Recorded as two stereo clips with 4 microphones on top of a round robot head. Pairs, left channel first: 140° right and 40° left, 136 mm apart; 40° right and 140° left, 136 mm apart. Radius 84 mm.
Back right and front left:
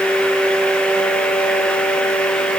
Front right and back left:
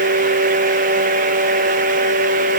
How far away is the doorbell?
I don't hear a doorbell.